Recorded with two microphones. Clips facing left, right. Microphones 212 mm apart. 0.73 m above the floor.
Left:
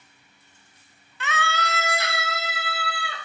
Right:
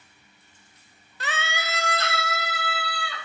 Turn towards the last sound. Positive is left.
turn(degrees=30)  # may be behind; listen again after turning